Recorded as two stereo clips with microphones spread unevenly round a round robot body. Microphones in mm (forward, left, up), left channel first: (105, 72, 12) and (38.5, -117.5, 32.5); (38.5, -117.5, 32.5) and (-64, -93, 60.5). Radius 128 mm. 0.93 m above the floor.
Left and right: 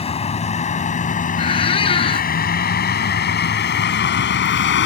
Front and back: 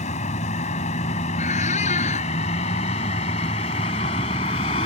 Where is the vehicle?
10° left; by 4.9 s 45° left.